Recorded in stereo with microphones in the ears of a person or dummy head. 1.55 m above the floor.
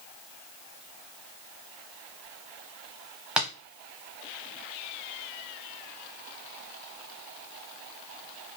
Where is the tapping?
5° right (ahead or behind), 0.7 m.